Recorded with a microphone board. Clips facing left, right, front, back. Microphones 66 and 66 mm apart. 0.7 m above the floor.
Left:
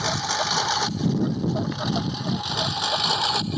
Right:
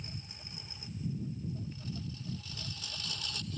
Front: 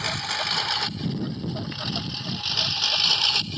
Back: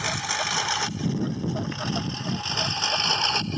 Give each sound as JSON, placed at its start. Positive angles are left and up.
{"t": 0.0, "sound": "a lawn mower", "azimuth_deg": 95}